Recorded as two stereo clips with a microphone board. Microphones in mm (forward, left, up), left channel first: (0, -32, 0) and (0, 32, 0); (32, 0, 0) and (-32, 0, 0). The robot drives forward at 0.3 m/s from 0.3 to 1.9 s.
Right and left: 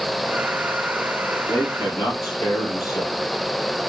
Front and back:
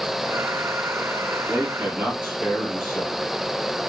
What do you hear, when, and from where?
1.5 s a man speaking: 105° right, 5 m; by 3.2 s 110° right, 5 m